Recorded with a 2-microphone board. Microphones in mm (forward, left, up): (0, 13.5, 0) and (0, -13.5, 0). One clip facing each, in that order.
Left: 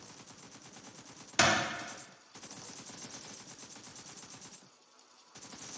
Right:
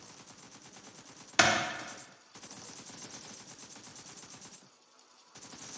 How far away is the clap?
About 0.6 m.